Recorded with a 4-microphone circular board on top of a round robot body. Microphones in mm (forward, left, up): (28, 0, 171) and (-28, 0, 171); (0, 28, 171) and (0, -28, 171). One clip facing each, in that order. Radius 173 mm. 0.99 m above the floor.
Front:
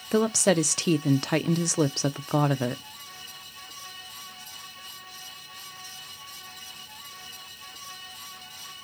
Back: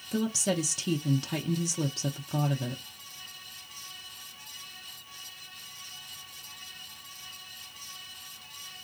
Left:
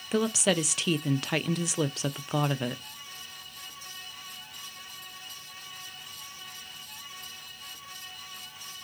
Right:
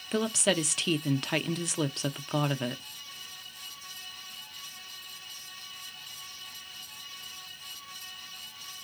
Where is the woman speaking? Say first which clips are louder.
Front 7 dB, left 2 dB; straight ahead, 0.6 m.